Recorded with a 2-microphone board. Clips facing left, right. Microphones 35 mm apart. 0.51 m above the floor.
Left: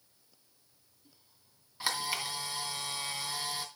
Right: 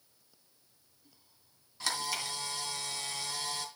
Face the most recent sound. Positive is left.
turn(degrees=15)  # may be behind; listen again after turning